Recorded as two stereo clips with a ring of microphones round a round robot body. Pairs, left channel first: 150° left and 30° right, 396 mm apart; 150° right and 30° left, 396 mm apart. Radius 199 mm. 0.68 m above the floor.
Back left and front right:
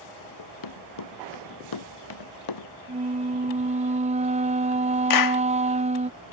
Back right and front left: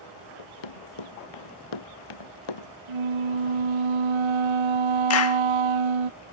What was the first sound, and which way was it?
Running footsteps, 170° right.